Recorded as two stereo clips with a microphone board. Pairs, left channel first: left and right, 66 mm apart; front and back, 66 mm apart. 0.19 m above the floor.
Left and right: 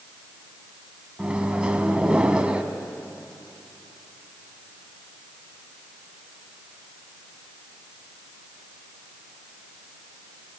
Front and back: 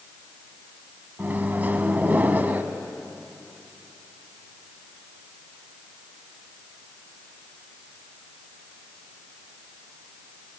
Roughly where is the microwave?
Behind right.